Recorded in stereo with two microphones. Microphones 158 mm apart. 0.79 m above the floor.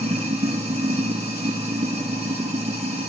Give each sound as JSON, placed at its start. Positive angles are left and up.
{"t": 0.0, "sound": "running water", "side_deg": -45, "distance_m": 1.9}